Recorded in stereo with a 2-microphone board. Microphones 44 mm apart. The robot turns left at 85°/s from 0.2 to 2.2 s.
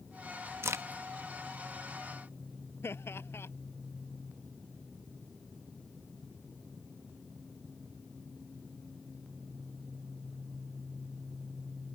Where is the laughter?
60° left (ahead or behind).